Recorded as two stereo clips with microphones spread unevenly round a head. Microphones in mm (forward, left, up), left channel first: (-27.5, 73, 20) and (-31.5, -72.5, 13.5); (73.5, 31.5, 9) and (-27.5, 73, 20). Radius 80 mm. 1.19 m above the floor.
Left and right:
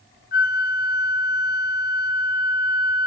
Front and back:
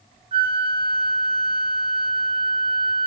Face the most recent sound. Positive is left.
turn(degrees=115)